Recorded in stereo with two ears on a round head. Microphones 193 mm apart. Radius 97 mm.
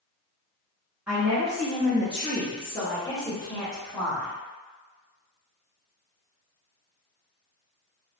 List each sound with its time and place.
1.1 s a woman speaking: 5° right (ahead or behind), 1.0 m; by 4.3 s 15° left (ahead or behind), 1.4 m